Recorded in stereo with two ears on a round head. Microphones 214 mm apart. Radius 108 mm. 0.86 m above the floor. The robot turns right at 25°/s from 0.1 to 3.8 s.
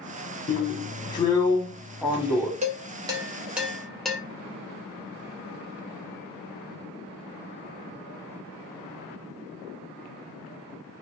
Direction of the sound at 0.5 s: 145° left.